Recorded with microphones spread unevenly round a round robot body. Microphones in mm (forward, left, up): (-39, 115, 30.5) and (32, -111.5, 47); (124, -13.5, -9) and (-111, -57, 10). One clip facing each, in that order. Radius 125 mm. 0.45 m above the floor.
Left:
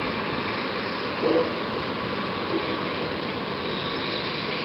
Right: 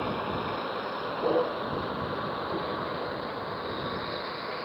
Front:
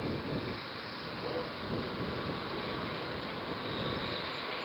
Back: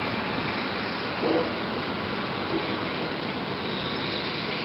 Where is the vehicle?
165° left; by 4.7 s 155° left.